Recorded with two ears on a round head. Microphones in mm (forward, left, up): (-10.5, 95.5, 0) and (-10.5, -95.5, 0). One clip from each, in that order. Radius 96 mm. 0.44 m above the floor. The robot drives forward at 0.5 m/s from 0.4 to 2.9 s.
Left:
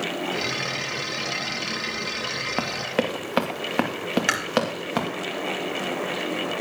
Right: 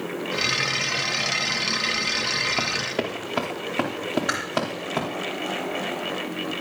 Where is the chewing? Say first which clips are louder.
Left 4 dB; 75° left (ahead or behind), 2 m.